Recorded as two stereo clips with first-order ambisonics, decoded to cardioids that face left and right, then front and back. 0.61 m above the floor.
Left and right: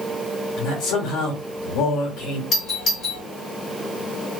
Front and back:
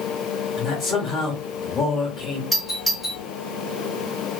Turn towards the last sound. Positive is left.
turn(degrees=75)